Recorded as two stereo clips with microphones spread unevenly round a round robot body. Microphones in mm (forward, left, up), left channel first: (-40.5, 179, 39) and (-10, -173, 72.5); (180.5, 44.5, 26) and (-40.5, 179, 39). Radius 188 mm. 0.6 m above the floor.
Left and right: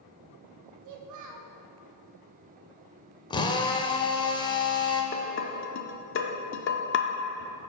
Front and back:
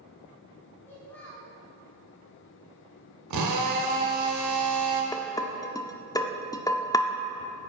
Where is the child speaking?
115° right, 0.8 m.